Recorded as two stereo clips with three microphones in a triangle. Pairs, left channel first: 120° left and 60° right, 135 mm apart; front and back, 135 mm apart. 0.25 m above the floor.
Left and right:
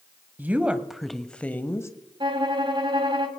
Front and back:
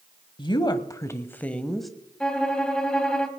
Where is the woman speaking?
5° left, 1.2 m; by 1.9 s 90° left, 1.0 m.